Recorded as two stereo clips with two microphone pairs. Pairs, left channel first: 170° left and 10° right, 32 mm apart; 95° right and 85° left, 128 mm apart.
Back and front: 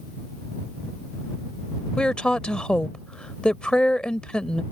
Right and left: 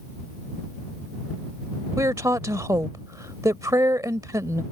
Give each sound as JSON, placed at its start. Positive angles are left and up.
{"t": 2.0, "sound": "a woman speaking", "azimuth_deg": 135}